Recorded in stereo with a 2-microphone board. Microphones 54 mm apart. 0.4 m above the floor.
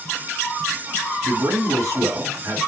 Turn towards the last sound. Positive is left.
turn(degrees=-75)  # may be behind; listen again after turning